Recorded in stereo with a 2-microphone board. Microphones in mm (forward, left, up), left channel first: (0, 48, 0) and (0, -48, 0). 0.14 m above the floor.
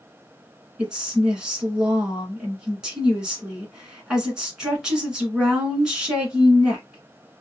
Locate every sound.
0.8 s a woman speaking: 10° right (ahead or behind), 1.6 m